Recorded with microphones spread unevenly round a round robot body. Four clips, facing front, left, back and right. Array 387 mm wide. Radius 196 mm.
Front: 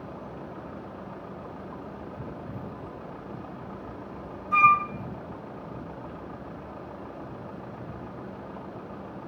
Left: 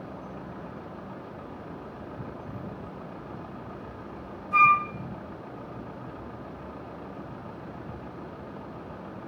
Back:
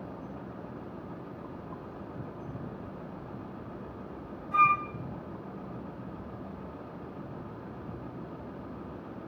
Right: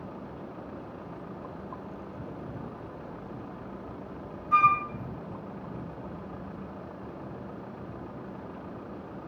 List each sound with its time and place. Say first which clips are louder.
4.5 s a flute: left 2 dB, front 5 dB; 40° right, 0.6 m